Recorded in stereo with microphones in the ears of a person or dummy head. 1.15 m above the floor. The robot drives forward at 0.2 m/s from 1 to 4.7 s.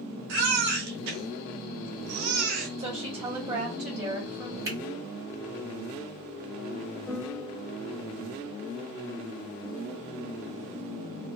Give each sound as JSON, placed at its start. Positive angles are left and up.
{"t": 0.3, "sound": "a baby crying", "side_deg": -60, "distance_m": 2.0}
{"t": 2.8, "sound": "a woman speaking", "side_deg": -30, "distance_m": 2.5}
{"t": 4.7, "sound": "a finger snap", "side_deg": -20, "distance_m": 3.0}
{"t": 7.1, "sound": "a piano", "side_deg": -5, "distance_m": 1.6}